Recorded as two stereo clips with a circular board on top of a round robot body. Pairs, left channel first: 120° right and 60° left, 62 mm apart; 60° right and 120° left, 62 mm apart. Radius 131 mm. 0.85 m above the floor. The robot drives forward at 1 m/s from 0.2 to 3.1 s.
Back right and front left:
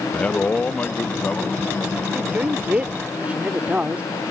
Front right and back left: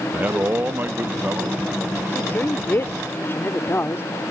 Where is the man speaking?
175° left; by 2.0 s straight behind.